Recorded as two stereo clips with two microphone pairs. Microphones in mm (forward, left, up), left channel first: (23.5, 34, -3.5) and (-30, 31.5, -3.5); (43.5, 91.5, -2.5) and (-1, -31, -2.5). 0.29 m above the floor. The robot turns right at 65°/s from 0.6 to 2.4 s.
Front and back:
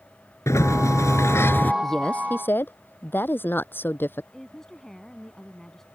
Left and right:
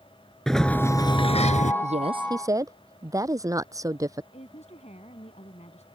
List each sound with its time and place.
0.5 s a sliding door: 15° right; by 1.7 s 55° left
1.8 s a woman speaking: 85° right; by 4.2 s 45° right
4.3 s a woman speaking: 85° left